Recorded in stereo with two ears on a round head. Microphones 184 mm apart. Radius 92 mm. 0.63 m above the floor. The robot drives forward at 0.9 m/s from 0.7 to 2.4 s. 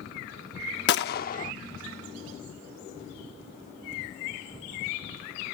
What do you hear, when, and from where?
0.9 s a gunshot: 55° left (ahead or behind); by 1.5 s 35° left (ahead or behind)